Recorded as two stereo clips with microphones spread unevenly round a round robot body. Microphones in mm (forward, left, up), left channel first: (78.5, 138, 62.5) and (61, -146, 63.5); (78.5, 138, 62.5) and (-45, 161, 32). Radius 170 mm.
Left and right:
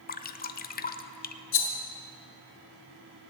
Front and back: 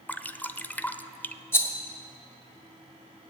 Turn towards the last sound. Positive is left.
turn(degrees=70)